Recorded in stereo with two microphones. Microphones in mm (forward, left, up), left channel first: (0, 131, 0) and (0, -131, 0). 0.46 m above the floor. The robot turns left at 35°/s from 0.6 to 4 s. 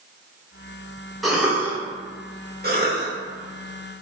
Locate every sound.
1.2 s a cough: centre (ahead or behind), 1.0 m; by 1.8 s 10° right (ahead or behind), 1.0 m
2.6 s a cough: 40° right (ahead or behind), 1.0 m; by 3.1 s 45° right (ahead or behind), 1.0 m